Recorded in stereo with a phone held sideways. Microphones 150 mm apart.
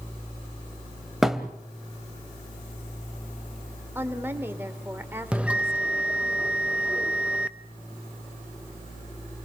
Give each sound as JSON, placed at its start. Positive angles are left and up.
{"t": 1.2, "sound": "a thud", "side_deg": -5, "distance_m": 1.6}
{"t": 4.0, "sound": "a woman speaking", "side_deg": -15, "distance_m": 3.0}
{"t": 5.3, "sound": "a bell", "side_deg": -5, "distance_m": 0.7}